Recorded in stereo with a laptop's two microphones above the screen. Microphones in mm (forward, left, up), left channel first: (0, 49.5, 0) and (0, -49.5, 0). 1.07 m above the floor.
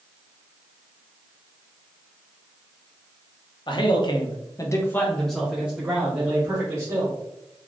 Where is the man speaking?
50° left (ahead or behind), 0.8 m; by 7.2 s 30° right (ahead or behind), 1.3 m.